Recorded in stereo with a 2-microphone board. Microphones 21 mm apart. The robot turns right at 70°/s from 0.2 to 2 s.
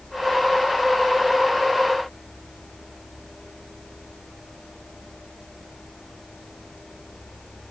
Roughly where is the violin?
No violin in this recording.